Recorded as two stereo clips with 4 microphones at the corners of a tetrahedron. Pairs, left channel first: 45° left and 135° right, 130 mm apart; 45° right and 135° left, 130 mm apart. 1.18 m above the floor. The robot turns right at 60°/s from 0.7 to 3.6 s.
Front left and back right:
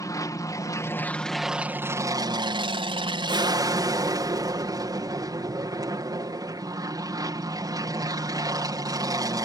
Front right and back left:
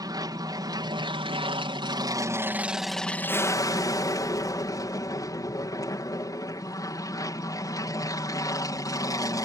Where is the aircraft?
95° left; by 9.4 s 90° right.